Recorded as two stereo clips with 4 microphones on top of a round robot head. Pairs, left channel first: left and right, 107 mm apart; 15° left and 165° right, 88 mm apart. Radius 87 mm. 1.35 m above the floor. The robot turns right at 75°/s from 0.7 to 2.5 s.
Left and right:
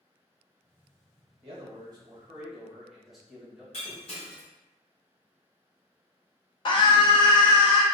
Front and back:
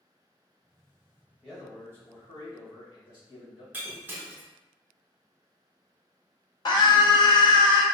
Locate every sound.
1.4 s a man speaking: 85° right, 1.4 m; by 3.6 s straight ahead, 1.4 m
3.7 s breaking glass: 130° left, 0.6 m
6.7 s a scream: 45° left, 0.7 m